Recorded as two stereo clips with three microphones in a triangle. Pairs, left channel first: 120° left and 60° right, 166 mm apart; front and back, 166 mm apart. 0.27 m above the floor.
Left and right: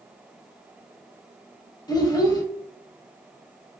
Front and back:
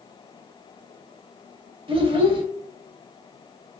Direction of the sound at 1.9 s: 165° left.